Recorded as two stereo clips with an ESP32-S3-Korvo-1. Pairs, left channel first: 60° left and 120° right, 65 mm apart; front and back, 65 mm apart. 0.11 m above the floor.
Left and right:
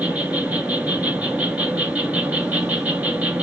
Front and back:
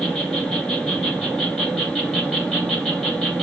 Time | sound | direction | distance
0.0 | an insect | 75° right | 1.0 m